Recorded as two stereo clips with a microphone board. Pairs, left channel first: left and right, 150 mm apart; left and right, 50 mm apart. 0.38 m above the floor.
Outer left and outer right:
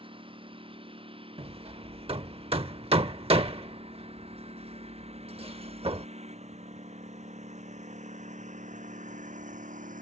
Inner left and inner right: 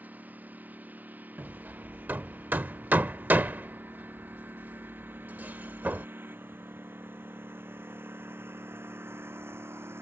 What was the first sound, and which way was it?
A lawn mower, 35° right (ahead or behind).